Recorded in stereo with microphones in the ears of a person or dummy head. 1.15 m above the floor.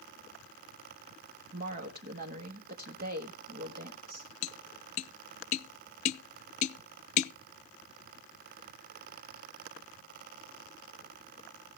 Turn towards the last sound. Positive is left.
turn(degrees=40)  # may be behind; listen again after turning